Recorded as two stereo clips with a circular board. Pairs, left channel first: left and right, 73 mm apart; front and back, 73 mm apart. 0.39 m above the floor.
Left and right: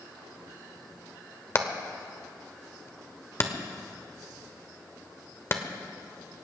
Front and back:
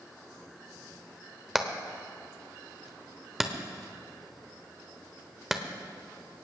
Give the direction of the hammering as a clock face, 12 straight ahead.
9 o'clock.